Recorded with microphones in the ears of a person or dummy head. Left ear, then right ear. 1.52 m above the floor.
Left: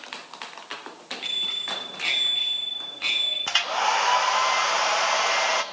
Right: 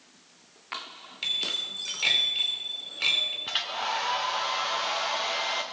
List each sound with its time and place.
1.2 s a bicycle bell: 15° right (ahead or behind), 5.5 m
3.5 s a hair dryer: 35° left (ahead or behind), 0.7 m